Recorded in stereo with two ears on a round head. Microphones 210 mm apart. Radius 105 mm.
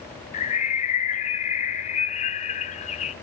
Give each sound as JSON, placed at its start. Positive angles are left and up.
{"t": 0.3, "sound": "a bird", "side_deg": 30, "distance_m": 0.8}